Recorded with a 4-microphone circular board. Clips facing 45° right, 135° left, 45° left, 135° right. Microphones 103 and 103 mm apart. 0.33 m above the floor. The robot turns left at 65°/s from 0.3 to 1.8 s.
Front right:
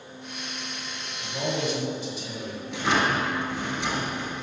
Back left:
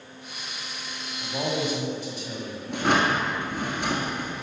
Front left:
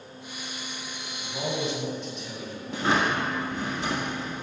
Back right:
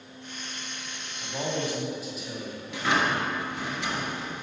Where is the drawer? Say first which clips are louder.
Back left 2 dB, front left 1 dB; 95° left, 1.3 m.